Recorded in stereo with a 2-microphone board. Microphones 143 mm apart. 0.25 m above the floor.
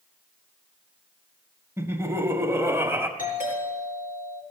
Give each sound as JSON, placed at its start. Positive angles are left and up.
{"t": 1.8, "sound": "laughter", "side_deg": -20, "distance_m": 1.0}
{"t": 3.2, "sound": "a doorbell", "side_deg": 70, "distance_m": 5.0}